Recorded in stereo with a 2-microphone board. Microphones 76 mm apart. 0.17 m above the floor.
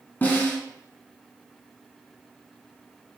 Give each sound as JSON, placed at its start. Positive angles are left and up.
{"t": 0.2, "sound": "a snare drum", "side_deg": 25, "distance_m": 0.9}